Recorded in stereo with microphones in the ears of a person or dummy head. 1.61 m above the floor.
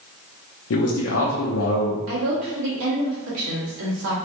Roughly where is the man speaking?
Left.